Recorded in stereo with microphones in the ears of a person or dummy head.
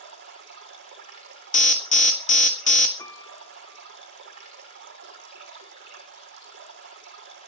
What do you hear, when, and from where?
0.0 s running water: 55° right (ahead or behind), 6.5 m
1.5 s an alarm: 40° left (ahead or behind), 1.6 m
3.0 s a piano: 15° left (ahead or behind), 2.5 m